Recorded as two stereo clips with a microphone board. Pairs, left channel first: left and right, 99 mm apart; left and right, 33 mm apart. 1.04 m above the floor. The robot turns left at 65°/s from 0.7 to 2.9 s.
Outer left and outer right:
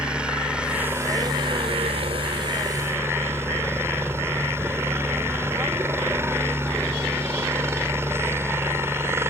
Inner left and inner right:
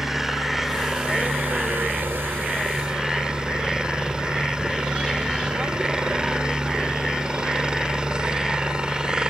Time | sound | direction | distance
0.0 | a helicopter | 10° right | ?